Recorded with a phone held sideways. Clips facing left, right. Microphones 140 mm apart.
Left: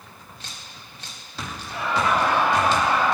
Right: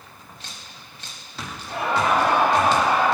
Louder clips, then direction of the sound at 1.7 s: Right 2 dB; 65° right (ahead or behind).